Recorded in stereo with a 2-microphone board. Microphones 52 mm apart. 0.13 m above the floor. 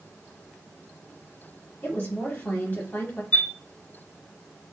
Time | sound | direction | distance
1.8 | a woman speaking | 35° left (ahead or behind) | 1.9 m
3.3 | a chime | 25° left (ahead or behind) | 1.6 m